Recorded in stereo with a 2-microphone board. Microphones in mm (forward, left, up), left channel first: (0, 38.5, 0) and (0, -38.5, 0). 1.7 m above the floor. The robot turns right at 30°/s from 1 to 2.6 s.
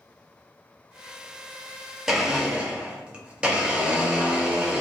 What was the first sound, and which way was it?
A blender, 5° right (ahead or behind).